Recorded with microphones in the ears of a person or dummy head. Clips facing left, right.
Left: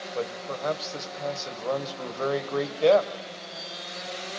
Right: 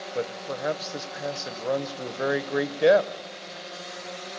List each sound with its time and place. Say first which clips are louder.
0.1 s a man speaking: right 1 dB; 20° right (ahead or behind), 1.4 m